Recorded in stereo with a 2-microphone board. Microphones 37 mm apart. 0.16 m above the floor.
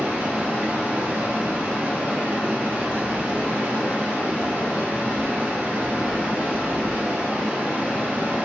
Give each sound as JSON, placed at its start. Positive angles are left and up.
{"t": 0.0, "sound": "running water", "side_deg": -65, "distance_m": 1.1}